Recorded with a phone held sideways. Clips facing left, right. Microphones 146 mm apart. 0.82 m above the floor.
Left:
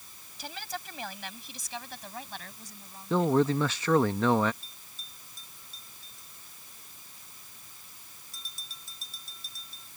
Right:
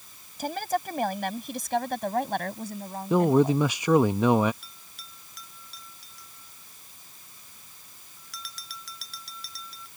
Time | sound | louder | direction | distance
0.4 | a woman speaking | right 12 dB | 50° right (ahead or behind) | ?
3.1 | a man speaking | right 4 dB | 15° right (ahead or behind) | ?
4.6 | a bell | right 3 dB | 90° right | ?